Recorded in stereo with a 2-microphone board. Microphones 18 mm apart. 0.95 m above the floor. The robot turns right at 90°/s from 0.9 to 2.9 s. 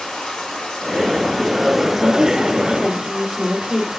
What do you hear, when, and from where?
0.0 s running water: 115° left, 4.5 m; by 4.0 s 65° right, 4.5 m
2.0 s a woman speaking: 75° right, 2.5 m; by 3.9 s 5° left, 2.5 m